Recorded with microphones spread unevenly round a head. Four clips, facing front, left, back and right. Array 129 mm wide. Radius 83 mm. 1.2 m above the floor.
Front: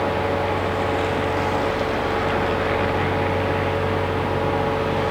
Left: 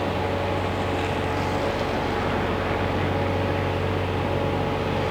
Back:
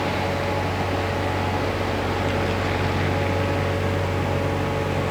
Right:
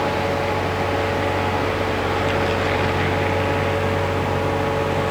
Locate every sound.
Only background noise.